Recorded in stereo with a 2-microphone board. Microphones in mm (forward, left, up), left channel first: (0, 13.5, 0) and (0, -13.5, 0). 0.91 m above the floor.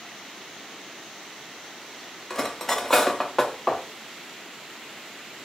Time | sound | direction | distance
2.3 | cutlery clinking | 10° left (ahead or behind) | 0.5 m